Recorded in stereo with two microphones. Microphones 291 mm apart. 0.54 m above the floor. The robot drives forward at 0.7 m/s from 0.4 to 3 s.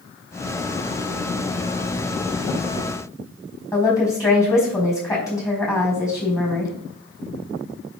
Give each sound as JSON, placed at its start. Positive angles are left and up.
{"t": 3.7, "sound": "a woman speaking", "side_deg": 10, "distance_m": 4.5}